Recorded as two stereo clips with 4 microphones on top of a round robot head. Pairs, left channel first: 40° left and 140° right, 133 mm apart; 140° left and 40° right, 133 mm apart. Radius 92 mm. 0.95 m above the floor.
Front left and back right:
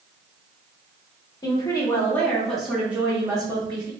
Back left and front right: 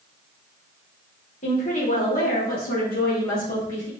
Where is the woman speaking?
105° left, 1.6 m; by 3.9 s 165° left, 1.5 m.